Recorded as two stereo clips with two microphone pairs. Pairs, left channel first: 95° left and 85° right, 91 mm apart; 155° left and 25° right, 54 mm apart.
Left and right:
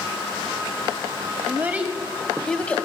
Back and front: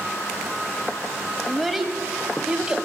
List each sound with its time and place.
1.5 s a child speaking: 115° right, 1.1 m; by 2.8 s 35° left, 1.2 m